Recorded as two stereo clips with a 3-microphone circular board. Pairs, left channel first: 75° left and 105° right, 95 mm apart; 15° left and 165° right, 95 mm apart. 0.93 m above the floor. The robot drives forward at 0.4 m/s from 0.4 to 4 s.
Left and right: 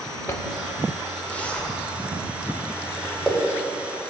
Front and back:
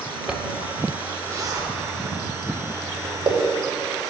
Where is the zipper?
120° left, 0.6 m; by 3.3 s 165° left, 1.5 m.